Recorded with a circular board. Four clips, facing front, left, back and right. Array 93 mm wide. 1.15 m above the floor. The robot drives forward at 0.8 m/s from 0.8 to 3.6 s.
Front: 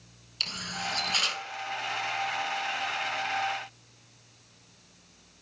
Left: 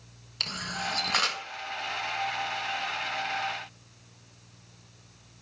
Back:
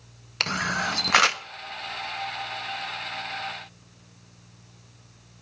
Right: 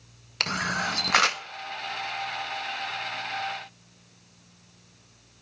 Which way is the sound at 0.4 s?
145° right.